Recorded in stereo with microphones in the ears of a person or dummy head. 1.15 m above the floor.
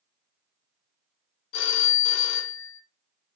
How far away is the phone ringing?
About 0.6 m.